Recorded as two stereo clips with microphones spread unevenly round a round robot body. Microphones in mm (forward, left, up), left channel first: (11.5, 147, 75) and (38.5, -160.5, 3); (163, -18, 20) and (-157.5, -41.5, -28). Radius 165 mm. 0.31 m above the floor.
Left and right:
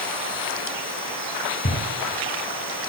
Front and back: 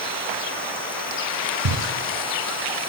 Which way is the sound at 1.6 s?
160° left.